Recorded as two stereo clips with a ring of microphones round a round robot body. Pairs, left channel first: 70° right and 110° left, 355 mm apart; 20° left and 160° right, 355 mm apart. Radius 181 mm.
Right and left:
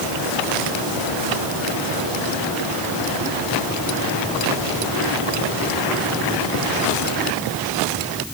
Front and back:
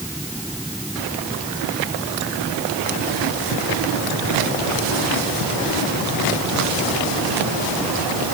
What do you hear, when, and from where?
Only background noise.